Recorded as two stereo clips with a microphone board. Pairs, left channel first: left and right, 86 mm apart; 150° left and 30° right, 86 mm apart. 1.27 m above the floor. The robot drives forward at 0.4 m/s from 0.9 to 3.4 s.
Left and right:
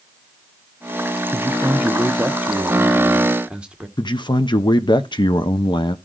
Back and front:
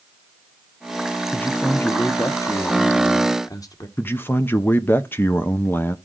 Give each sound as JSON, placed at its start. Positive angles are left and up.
{"t": 1.3, "sound": "a man speaking", "azimuth_deg": -140, "distance_m": 0.5}
{"t": 4.0, "sound": "a man speaking", "azimuth_deg": 90, "distance_m": 0.6}